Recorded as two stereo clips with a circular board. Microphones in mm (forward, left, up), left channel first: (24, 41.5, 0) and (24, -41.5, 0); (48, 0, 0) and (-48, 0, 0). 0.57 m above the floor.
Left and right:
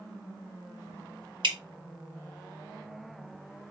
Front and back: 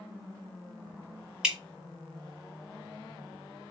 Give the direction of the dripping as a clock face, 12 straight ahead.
3 o'clock.